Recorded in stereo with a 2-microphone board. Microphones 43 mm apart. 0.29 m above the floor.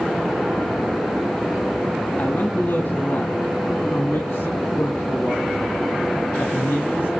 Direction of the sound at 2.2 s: 40° left (ahead or behind).